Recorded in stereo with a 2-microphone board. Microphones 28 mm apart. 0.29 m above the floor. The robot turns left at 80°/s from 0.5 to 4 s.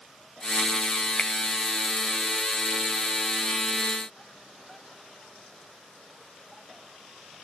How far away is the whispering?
I don't hear whispering.